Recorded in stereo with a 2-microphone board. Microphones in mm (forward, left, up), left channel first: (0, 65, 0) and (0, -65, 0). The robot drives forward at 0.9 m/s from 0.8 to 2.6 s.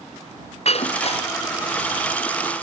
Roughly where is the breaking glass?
Left.